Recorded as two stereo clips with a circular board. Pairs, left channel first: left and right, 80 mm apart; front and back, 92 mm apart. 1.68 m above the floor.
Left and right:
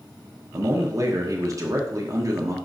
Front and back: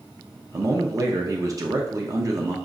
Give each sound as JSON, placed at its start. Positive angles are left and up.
{"t": 0.5, "sound": "a man speaking", "azimuth_deg": -130, "distance_m": 0.6}